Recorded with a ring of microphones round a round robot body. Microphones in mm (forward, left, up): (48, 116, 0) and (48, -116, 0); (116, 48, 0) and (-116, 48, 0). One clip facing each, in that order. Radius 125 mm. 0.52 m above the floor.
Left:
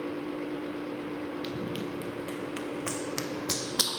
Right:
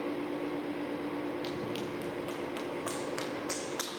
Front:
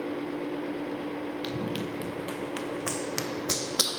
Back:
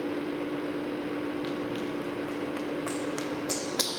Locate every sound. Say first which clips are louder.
1.4 s running footsteps: left 2 dB, back 1 dB; 25° left, 3 m; by 4.0 s 90° left, 0.9 m